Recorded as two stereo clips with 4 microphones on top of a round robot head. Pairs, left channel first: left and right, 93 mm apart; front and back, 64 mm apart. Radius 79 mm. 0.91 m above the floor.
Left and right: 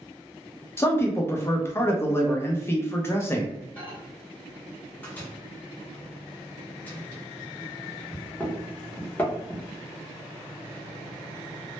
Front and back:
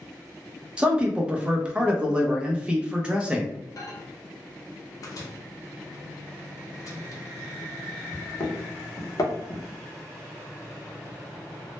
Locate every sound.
0.8 s a man speaking: 120° left, 0.6 m
3.8 s a microwave: 20° left, 0.7 m